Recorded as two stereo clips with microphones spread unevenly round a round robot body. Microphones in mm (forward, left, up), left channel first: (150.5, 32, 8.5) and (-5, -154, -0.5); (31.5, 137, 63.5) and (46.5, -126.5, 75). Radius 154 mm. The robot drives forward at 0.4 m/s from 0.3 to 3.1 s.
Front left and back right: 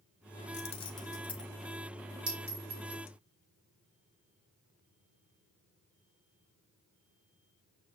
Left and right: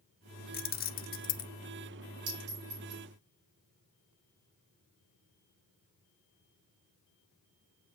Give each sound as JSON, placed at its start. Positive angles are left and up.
{"t": 0.5, "sound": "keys jangling", "azimuth_deg": 90, "distance_m": 0.6}
{"t": 2.3, "sound": "a clink", "azimuth_deg": -90, "distance_m": 4.5}